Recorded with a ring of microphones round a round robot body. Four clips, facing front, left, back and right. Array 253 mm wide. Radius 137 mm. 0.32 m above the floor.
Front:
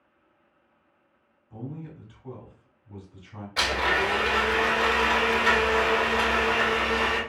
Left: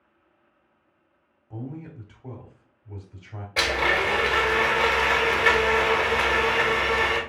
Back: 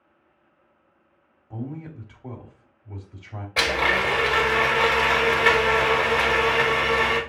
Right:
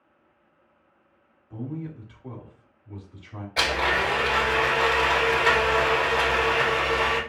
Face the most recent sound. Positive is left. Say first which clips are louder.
# left 1 dB, back 2 dB
turn(degrees=160)